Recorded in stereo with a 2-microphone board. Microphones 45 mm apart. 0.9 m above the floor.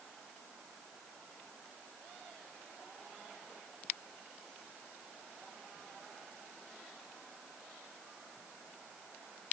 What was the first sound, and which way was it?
Only background noise.